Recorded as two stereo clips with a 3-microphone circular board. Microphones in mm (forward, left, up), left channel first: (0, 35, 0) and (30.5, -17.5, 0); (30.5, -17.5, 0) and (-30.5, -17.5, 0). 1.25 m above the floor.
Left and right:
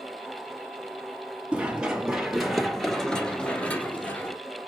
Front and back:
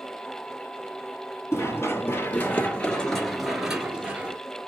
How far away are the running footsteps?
About 1.7 m.